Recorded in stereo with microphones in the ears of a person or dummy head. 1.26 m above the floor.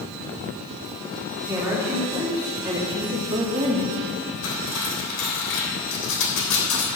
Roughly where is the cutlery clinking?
Left.